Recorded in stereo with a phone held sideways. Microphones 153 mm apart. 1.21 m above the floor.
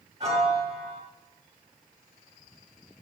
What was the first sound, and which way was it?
A piano, 40° right (ahead or behind).